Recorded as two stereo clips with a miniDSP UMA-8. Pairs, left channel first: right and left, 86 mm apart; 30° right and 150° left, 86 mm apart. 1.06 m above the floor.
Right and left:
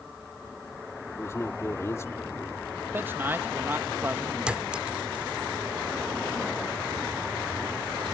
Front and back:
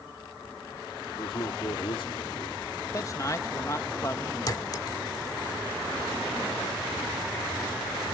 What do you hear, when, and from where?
1.2 s a man speaking: 35° right
2.9 s a man speaking: 25° left
4.5 s a clink: 10° left